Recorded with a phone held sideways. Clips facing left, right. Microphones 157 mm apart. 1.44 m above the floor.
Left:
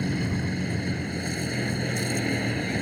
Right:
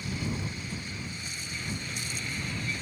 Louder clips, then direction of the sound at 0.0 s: Left 7 dB; 60° left (ahead or behind).